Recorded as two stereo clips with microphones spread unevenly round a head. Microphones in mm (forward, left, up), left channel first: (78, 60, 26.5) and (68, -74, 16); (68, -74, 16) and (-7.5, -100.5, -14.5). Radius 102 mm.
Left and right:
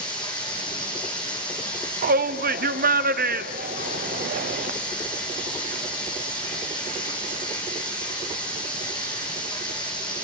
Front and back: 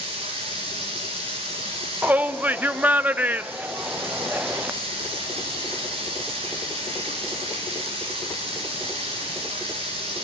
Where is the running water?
155° left, 2 m.